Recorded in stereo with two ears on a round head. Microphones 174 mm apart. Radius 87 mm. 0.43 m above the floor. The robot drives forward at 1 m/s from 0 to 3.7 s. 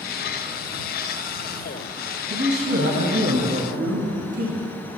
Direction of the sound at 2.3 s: 70° right (ahead or behind).